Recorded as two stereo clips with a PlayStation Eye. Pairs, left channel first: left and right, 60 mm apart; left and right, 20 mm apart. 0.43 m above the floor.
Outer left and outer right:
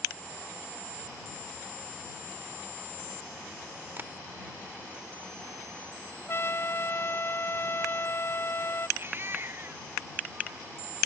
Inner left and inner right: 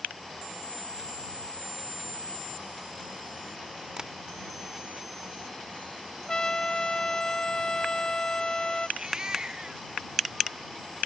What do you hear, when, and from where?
4.0 s tapping: 35° right (ahead or behind)
6.3 s a trumpet: 45° left (ahead or behind)
9.0 s a baby crying: 35° right (ahead or behind)